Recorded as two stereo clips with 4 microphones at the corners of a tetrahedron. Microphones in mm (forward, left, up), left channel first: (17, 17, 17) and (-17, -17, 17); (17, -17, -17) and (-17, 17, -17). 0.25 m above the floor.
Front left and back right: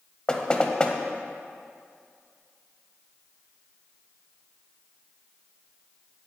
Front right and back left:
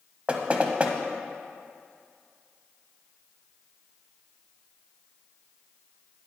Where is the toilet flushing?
No toilet flushing in this recording.